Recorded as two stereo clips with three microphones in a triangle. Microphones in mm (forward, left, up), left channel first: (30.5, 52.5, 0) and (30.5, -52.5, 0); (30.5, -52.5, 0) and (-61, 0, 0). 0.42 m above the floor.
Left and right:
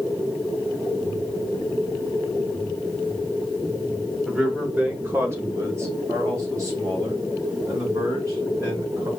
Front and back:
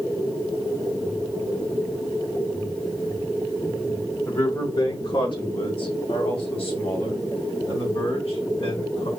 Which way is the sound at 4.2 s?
15° right.